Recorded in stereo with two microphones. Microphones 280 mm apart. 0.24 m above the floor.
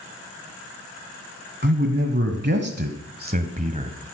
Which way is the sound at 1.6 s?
40° right (ahead or behind).